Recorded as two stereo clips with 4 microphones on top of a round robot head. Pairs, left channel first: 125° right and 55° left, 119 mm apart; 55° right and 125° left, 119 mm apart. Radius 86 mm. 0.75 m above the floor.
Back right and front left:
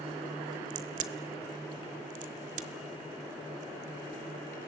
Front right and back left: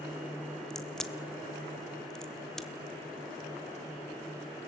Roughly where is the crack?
Ahead left.